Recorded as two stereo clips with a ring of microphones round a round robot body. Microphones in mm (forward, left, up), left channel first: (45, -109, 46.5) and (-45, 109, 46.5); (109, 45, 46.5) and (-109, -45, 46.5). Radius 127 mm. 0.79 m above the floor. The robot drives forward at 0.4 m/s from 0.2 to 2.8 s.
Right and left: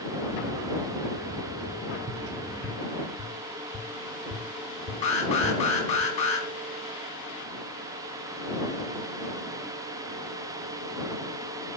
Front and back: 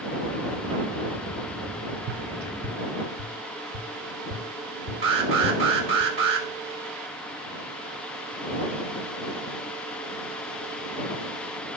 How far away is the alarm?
About 3 m.